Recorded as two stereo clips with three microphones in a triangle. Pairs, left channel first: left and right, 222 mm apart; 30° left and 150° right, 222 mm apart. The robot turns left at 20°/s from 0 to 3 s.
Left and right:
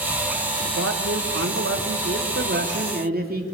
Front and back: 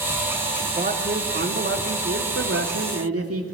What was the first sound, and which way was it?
A man speaking, 95° right.